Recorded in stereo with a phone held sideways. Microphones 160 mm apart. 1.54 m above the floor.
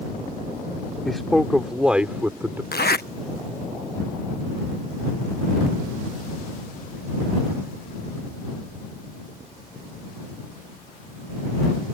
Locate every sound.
1.1 s a man speaking: centre (ahead or behind); by 2.6 s 15° right (ahead or behind)
2.7 s a zipper: 80° left